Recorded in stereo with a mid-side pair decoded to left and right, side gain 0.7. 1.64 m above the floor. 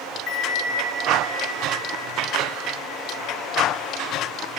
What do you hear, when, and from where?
0.3 s a bell: 50° left, 4 m